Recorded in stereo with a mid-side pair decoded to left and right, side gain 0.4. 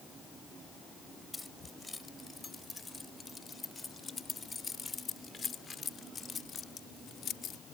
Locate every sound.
1.3 s keys jangling: 15° left; by 7.6 s 65° left